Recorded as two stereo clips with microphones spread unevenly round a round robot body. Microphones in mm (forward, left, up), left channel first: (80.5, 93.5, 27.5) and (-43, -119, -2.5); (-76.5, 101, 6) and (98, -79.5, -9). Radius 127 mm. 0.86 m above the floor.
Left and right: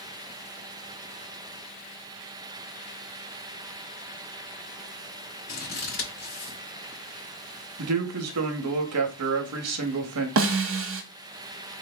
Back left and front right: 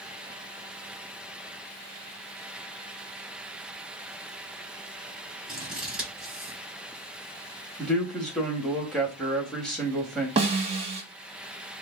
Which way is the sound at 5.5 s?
40° left.